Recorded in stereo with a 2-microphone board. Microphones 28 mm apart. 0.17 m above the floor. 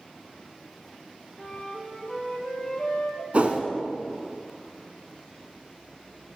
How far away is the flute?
About 1.4 m.